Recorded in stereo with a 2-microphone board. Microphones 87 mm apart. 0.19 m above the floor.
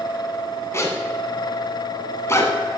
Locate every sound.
0.7 s a zipper: 35° left (ahead or behind), 1.2 m